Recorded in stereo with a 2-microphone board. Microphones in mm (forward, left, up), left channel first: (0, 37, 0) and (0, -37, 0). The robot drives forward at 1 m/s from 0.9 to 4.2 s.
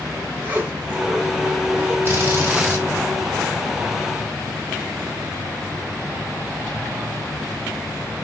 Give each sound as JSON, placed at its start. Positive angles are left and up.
{"t": 0.4, "sound": "a zipper", "side_deg": -25, "distance_m": 3.0}
{"t": 2.0, "sound": "a drill", "side_deg": -30, "distance_m": 3.5}